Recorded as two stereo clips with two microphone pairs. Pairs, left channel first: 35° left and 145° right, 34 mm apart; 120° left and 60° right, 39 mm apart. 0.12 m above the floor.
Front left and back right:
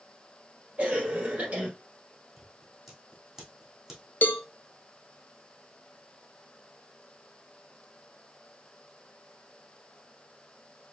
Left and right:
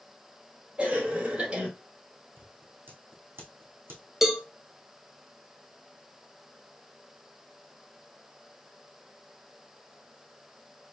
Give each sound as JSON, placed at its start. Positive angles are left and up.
{"t": 0.8, "sound": "a cough", "azimuth_deg": -115, "distance_m": 2.5}
{"t": 2.4, "sound": "scissors", "azimuth_deg": -70, "distance_m": 2.5}
{"t": 4.2, "sound": "a cowbell", "azimuth_deg": 20, "distance_m": 0.7}